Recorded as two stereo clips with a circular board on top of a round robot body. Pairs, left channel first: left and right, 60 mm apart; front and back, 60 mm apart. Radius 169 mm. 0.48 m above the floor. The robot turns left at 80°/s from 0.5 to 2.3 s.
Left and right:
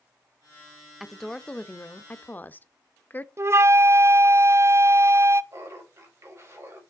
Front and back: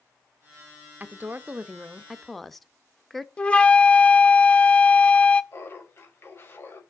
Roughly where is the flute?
Ahead right.